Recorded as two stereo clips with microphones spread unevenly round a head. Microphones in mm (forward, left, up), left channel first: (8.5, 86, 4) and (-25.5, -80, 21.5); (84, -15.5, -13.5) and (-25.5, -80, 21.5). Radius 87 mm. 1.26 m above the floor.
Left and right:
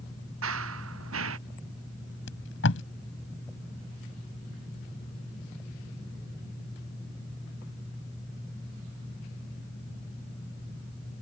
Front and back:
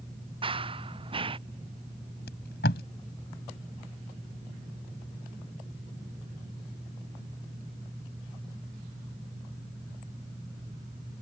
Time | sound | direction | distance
0.4 | running footsteps | 105° right | ?
2.3 | tape being pulled | 55° left | ?